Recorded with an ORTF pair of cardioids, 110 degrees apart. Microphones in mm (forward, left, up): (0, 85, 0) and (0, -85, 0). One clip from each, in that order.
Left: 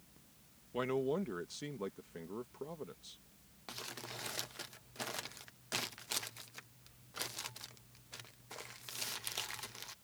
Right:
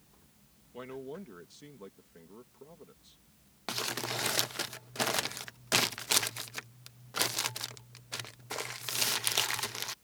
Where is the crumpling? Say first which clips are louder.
Right 12 dB; 50° right.